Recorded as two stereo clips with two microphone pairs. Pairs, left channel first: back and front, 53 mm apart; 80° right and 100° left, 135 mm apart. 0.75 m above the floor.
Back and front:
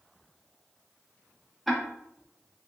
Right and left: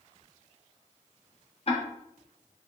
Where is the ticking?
90° right, 1.5 m.